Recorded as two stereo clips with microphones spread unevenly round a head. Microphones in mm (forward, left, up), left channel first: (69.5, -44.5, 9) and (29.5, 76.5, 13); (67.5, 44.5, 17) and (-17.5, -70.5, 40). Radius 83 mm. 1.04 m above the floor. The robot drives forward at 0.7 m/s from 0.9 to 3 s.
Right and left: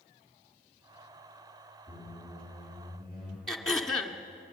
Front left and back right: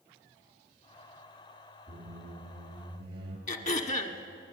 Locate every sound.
1.9 s a squeak: 175° left, 3.5 m
3.5 s throat clearing: 15° left, 1.6 m